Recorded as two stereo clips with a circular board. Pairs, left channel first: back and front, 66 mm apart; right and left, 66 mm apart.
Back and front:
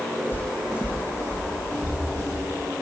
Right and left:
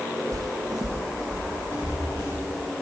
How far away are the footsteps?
About 0.5 m.